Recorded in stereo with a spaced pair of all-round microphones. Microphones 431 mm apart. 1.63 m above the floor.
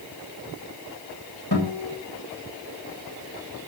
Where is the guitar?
60° left (ahead or behind), 7.5 m.